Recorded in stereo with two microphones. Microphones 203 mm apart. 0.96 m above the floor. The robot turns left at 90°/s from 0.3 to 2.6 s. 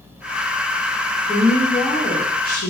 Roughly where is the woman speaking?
Behind right.